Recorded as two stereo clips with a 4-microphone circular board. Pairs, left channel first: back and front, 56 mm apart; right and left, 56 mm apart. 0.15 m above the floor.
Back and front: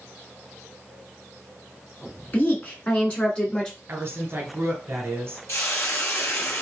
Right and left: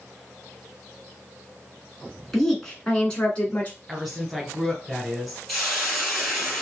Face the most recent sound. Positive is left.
turn(degrees=-175)